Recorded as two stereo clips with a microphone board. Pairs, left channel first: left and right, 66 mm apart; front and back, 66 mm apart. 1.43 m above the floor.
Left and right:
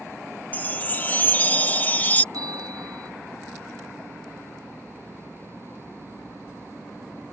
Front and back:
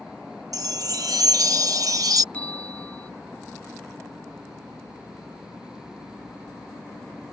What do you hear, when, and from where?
0.5 s a chime: 155° left
2.3 s a bell: 70° right